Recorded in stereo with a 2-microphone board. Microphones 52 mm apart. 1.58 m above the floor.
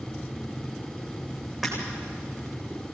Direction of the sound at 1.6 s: 5° right (ahead or behind).